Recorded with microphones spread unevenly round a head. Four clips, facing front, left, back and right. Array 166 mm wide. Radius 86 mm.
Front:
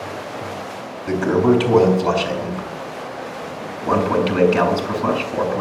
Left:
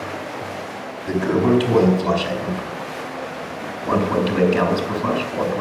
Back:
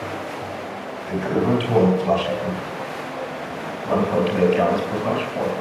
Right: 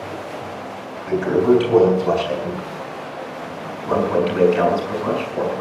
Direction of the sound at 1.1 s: 15° left.